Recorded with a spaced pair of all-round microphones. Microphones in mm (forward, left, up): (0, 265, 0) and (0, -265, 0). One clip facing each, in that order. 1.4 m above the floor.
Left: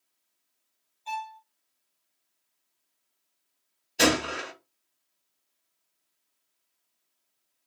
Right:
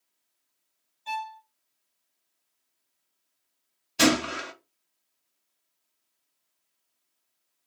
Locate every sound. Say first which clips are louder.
1.1 s a violin: right 1 dB; 40° right (ahead or behind), 0.7 m
4.0 s a gunshot: right 2 dB; 25° right (ahead or behind), 0.7 m